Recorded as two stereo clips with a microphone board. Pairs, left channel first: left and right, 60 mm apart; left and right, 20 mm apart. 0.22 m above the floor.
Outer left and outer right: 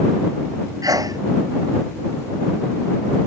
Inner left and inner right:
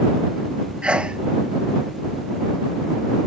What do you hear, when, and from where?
0.8 s a sneeze: 80° right